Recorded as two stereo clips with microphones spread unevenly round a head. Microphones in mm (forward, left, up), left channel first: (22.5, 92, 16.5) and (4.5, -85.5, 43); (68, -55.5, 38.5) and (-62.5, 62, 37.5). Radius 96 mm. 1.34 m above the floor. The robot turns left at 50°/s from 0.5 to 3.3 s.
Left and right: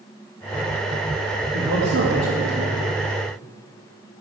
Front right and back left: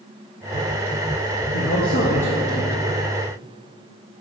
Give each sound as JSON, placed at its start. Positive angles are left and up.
{"t": 1.5, "sound": "a man speaking", "azimuth_deg": -55, "distance_m": 0.9}